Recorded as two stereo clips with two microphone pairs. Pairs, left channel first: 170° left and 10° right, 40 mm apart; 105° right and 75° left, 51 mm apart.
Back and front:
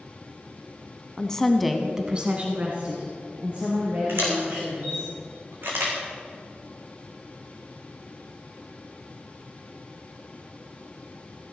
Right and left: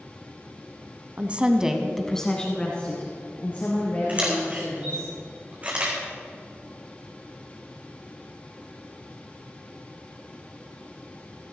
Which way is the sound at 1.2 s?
110° left.